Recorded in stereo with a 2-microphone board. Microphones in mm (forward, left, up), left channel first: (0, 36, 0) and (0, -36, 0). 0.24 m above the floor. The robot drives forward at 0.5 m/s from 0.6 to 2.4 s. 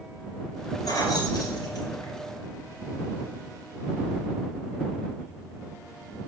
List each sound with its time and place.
0.8 s keys jangling: 60° left (ahead or behind), 2.5 m; by 2.2 s 70° left (ahead or behind), 2.5 m